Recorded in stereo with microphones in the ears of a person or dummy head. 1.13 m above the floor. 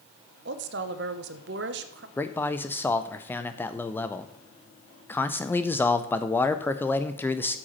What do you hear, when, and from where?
0.5 s a woman speaking: 55° right (ahead or behind), 0.9 m
2.2 s a man speaking: 10° left (ahead or behind), 0.6 m